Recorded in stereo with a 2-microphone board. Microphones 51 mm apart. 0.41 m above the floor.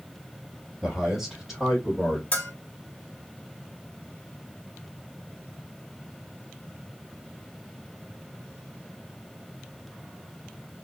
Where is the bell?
25° left (ahead or behind), 1.3 m.